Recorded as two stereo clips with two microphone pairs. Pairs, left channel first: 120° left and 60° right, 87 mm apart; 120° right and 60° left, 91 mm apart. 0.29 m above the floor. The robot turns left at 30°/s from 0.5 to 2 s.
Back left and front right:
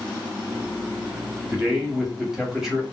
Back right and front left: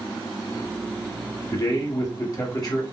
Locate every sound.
1.5 s a man speaking: 125° right, 1.3 m; by 2.8 s 140° right, 1.3 m